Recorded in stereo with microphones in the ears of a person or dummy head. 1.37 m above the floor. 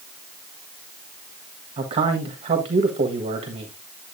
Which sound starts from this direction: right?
A man speaking, at 1.8 s.